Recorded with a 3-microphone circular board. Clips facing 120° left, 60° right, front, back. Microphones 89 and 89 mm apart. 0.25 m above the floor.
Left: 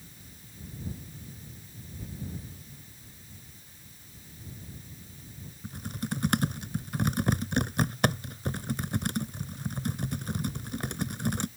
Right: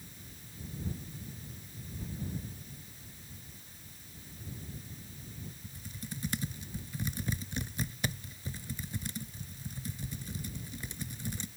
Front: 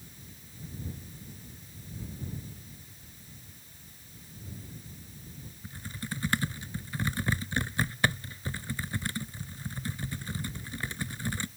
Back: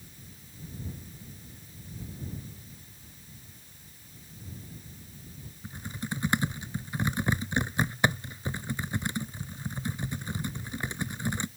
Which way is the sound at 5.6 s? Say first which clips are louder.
Left 14 dB, back 3 dB; 110° left.